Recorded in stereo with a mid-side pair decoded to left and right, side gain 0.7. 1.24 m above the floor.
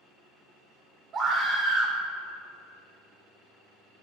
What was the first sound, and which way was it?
A scream, 25° right.